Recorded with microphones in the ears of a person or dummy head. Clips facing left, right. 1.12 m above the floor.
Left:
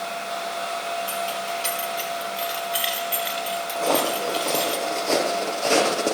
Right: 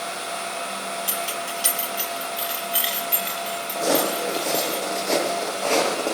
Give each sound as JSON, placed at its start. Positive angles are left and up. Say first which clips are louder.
{"t": 1.1, "sound": "keys jangling", "louder": "left 2 dB", "side_deg": -20, "distance_m": 3.0}
{"t": 3.8, "sound": "footsteps", "louder": "right 1 dB", "side_deg": -10, "distance_m": 3.5}